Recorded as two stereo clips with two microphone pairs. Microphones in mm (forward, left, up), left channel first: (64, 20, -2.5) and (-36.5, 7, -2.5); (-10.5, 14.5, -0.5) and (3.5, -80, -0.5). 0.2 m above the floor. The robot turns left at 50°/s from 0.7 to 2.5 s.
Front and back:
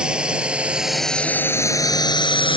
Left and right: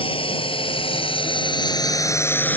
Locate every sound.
0.0 s a drone: 105° left; by 2.6 s 30° left